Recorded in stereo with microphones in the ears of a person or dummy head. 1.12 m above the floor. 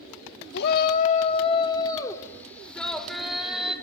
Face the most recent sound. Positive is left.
turn(degrees=-5)  # may be behind; listen again after turning